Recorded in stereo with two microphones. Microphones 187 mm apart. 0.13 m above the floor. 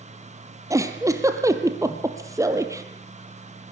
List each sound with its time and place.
0.7 s a giggle: 15° right (ahead or behind), 2 m